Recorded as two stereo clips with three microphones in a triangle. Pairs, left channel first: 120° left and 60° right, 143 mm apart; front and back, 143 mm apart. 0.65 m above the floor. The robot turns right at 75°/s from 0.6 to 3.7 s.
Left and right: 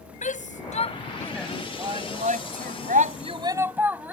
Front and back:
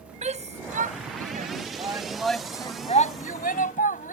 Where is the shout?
145° left; by 4.2 s 15° left.